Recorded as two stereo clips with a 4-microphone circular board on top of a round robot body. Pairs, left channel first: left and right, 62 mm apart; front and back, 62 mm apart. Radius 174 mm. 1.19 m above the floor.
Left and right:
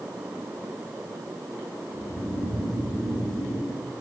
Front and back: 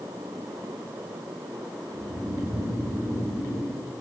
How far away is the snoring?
About 10 m.